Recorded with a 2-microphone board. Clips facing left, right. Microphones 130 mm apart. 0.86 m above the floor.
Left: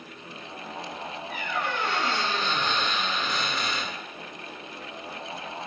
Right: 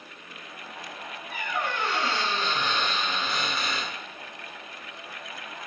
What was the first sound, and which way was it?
A squeak, 10° right (ahead or behind).